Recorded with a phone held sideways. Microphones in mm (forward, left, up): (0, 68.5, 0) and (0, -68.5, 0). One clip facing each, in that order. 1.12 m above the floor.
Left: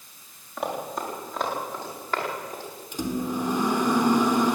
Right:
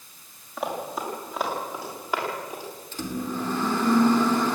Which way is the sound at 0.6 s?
Centre (ahead or behind).